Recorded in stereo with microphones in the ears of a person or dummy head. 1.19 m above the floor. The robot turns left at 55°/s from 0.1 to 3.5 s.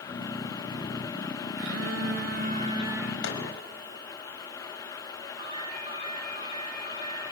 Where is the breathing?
I don't hear breathing.